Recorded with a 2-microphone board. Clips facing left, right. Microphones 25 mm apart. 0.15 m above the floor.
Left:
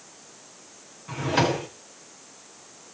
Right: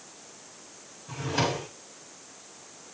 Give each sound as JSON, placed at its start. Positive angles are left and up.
{"t": 1.1, "sound": "a drawer", "side_deg": 60, "distance_m": 4.5}